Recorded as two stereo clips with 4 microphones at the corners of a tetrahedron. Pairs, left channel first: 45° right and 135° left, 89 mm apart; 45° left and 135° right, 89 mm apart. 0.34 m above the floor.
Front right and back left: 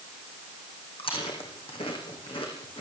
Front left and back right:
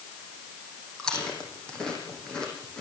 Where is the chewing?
35° right, 8.5 m.